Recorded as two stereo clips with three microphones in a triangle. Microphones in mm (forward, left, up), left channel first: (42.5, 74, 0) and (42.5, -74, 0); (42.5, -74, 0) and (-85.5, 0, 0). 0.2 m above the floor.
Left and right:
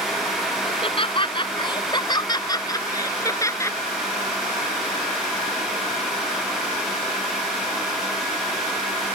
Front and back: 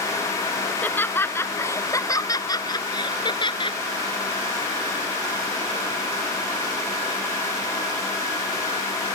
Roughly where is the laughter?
Ahead left.